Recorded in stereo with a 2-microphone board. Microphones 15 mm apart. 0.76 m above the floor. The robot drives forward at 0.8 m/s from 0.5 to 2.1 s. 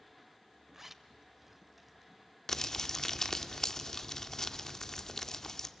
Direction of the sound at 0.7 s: 20° right (ahead or behind).